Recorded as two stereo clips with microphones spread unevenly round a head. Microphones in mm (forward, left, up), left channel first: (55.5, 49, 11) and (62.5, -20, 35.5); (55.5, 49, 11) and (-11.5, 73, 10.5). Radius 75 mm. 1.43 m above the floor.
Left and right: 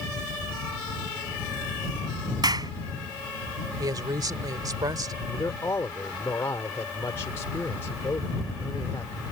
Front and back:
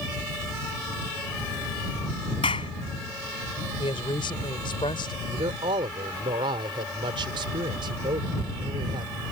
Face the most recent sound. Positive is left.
turn(degrees=170)